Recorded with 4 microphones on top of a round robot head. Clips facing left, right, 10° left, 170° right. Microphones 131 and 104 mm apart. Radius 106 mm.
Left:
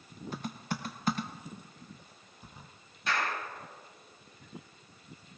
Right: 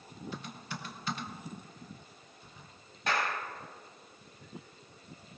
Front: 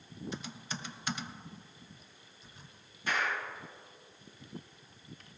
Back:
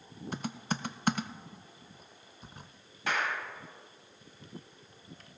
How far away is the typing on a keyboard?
About 0.5 m.